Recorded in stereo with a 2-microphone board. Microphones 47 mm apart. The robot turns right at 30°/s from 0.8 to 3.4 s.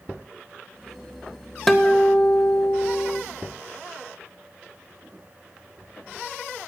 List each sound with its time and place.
1.7 s a guitar: 5° left, 0.7 m; by 3.2 s 50° left, 0.7 m